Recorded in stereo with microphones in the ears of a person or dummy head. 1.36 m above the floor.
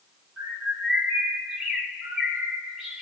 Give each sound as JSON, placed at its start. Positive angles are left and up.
{"t": 0.4, "sound": "a bird", "side_deg": -5, "distance_m": 2.0}